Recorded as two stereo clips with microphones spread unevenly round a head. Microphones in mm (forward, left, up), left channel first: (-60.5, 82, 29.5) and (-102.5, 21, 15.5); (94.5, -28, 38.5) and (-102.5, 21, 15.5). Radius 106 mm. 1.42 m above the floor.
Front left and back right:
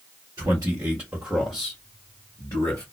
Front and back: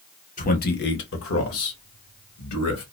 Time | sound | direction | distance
0.4 | a man speaking | 70° right | 1.2 m